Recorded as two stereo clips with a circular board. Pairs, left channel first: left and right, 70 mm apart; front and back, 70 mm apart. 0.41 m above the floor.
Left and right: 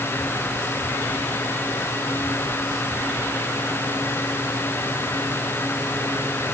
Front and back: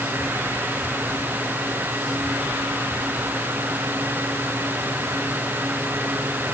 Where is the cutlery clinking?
I don't hear cutlery clinking.